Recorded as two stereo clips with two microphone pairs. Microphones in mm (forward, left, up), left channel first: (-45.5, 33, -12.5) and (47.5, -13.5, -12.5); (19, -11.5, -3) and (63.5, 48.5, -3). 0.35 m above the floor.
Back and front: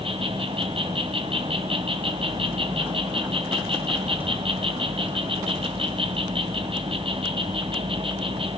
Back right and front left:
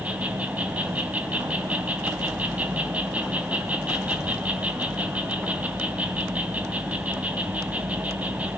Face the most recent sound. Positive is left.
turn(degrees=-15)